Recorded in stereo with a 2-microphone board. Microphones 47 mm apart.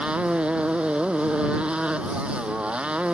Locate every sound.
0.0 s a motorcycle: 25° right (ahead or behind)